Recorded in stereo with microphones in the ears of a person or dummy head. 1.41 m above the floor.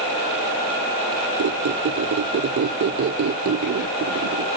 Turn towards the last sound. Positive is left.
turn(degrees=-45)  # may be behind; listen again after turning